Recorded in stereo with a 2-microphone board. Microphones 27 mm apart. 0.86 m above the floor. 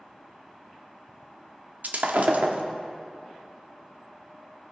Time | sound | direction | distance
1.8 | breaking glass | 85° right | 0.9 m